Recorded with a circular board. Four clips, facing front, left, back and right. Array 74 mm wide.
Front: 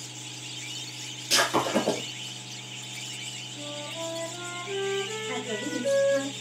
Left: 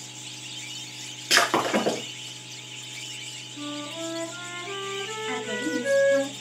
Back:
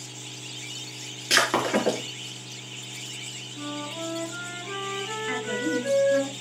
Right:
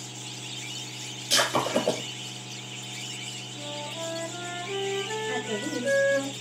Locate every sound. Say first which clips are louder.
1.3 s breaking glass: left 3 dB, back 2 dB; 125° left, 5 m
3.5 s a flute: left 3 dB, back 3 dB; 110° left, 6.5 m
5.3 s a woman speaking: left 2 dB, back 4 dB; 140° left, 6.5 m